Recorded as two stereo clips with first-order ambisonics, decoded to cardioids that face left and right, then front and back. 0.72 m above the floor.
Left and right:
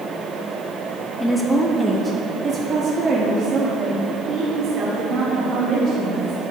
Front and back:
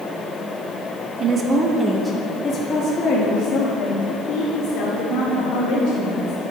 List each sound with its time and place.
1.2 s a woman speaking: 160° left, 1.0 m; by 6.5 s 35° right, 3 m